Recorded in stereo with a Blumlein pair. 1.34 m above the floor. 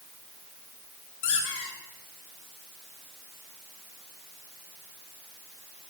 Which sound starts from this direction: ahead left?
A squeak, at 1.2 s.